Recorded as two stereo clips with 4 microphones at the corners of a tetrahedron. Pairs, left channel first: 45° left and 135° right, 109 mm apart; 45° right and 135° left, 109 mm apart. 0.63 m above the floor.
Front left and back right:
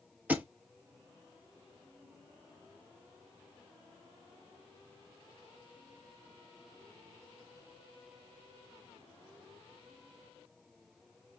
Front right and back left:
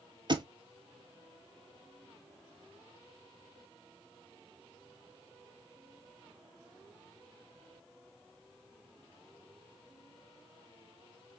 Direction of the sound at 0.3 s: 155° left.